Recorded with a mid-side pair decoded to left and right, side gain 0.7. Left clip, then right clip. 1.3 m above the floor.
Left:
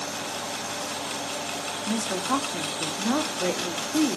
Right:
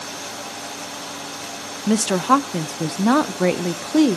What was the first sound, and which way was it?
A woman speaking, 45° right.